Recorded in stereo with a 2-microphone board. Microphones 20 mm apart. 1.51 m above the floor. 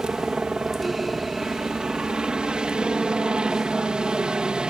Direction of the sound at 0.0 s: 50° right (ahead or behind).